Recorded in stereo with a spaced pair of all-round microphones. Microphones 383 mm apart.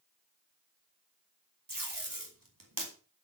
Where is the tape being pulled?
60° right (ahead or behind), 3 m.